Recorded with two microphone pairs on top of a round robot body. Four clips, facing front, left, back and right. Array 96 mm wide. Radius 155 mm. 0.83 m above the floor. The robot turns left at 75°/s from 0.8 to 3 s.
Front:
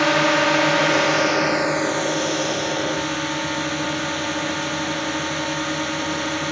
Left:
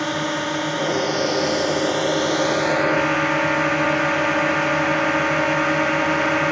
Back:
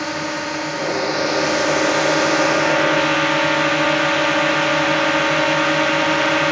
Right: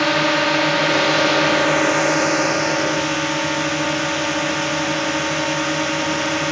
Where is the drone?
40° right; by 6.5 s 155° left.